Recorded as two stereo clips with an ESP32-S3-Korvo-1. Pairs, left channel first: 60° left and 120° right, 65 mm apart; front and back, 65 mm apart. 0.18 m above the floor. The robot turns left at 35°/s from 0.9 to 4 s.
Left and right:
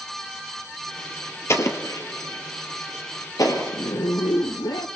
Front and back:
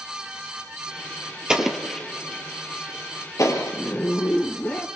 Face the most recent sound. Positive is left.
turn(degrees=65)